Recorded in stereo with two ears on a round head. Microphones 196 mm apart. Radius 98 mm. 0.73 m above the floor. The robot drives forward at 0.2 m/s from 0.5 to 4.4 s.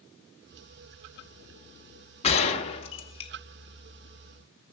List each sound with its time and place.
2.2 s a gunshot: 30° left (ahead or behind), 1.0 m; by 3.3 s 25° left (ahead or behind), 1.2 m